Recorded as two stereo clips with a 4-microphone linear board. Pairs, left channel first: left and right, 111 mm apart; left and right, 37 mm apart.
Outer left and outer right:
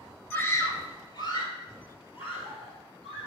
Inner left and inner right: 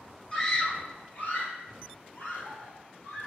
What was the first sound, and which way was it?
A scream, 15° left (ahead or behind).